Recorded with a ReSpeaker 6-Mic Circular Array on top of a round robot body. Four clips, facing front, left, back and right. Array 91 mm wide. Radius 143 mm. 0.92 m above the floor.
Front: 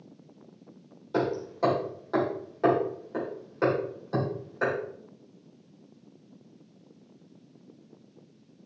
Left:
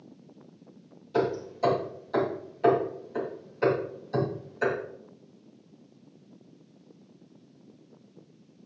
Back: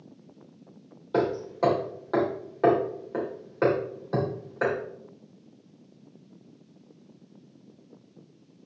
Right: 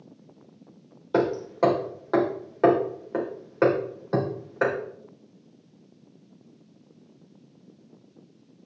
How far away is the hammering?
About 3 m.